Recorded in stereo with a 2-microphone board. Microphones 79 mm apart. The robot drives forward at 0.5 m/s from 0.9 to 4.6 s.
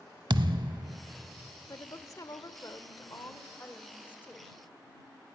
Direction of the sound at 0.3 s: 85° right.